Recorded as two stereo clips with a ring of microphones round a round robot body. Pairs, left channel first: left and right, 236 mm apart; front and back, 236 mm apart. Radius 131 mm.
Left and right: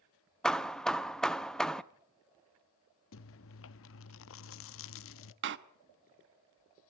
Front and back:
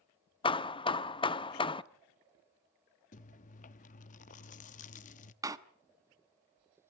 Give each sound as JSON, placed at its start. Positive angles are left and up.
{"t": 0.4, "sound": "hammering", "azimuth_deg": 5, "distance_m": 0.6}
{"t": 3.1, "sound": "chewing", "azimuth_deg": 60, "distance_m": 0.5}
{"t": 5.4, "sound": "a door slam", "azimuth_deg": -105, "distance_m": 1.0}